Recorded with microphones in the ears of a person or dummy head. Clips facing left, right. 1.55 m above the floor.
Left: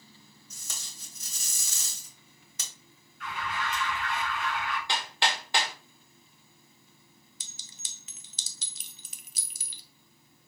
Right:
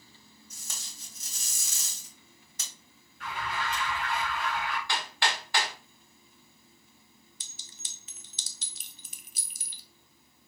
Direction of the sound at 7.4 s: 50° left (ahead or behind).